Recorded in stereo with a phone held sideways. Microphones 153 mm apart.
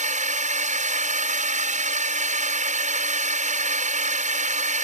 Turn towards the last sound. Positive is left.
turn(degrees=-50)  # may be behind; listen again after turning